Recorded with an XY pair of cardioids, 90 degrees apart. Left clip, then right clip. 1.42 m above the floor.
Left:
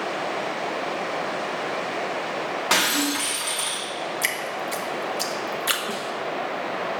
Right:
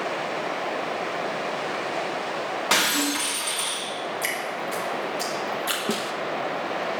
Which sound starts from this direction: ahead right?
A snare drum, at 5.9 s.